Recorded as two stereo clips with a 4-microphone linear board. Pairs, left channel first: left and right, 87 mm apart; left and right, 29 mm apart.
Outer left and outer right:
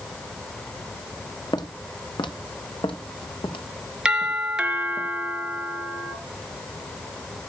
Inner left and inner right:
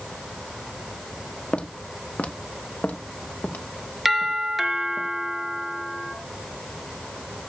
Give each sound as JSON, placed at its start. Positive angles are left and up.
{"t": 1.5, "sound": "footsteps", "side_deg": 45, "distance_m": 1.4}
{"t": 4.0, "sound": "a doorbell", "side_deg": -10, "distance_m": 1.9}